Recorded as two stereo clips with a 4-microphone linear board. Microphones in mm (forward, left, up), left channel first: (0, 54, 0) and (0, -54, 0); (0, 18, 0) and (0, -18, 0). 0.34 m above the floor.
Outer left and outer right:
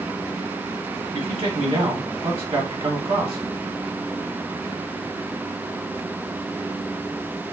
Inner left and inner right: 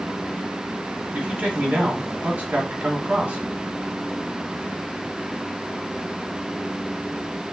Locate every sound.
1.1 s a man speaking: 65° right (ahead or behind), 2.5 m